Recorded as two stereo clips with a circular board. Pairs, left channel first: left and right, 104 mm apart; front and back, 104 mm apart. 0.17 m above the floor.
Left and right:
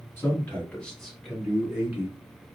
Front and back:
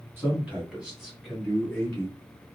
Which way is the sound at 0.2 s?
135° left.